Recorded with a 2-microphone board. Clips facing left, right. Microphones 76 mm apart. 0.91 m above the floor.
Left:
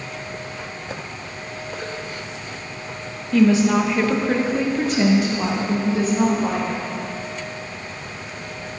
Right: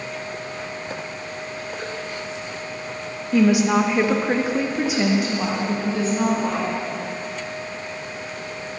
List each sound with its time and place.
3.3 s a woman speaking: 15° right (ahead or behind), 1.3 m; by 6.8 s 5° left (ahead or behind), 2.5 m